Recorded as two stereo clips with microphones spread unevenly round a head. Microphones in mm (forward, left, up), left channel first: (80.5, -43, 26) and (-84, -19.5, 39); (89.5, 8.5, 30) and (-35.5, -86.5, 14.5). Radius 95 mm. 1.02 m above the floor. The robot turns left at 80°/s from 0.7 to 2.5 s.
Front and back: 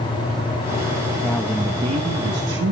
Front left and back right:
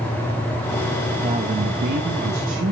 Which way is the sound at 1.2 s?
80° right.